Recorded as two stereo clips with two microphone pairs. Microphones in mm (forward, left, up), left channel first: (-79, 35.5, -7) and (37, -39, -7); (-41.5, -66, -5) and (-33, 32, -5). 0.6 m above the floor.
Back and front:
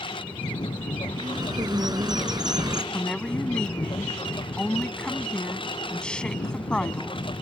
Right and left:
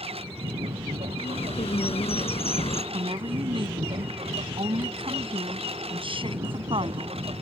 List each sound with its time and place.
0.0 s a lawn mower: 95° left
1.2 s a bird: 95° right
2.9 s a woman speaking: 65° left